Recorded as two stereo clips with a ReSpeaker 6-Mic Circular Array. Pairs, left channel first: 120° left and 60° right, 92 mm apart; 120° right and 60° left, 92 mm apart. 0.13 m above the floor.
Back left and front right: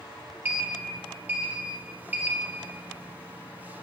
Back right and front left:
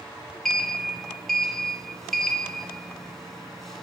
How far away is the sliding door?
About 0.7 m.